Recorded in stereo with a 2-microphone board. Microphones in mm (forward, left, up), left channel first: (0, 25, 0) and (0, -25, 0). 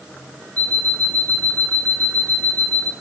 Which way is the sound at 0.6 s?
30° left (ahead or behind).